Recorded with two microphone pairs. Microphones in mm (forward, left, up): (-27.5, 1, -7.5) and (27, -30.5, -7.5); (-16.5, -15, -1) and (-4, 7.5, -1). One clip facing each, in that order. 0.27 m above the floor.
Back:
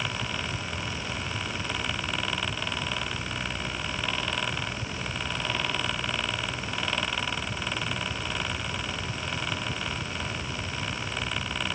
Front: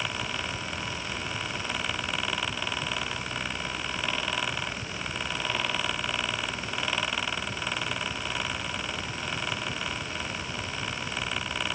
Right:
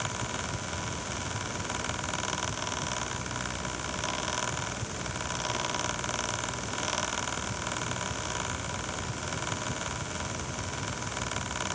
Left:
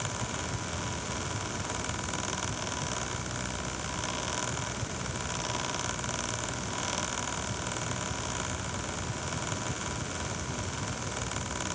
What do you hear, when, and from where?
Only background noise.